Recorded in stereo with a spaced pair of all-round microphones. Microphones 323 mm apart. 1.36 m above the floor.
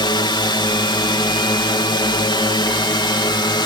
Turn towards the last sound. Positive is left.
turn(degrees=15)  # may be behind; listen again after turning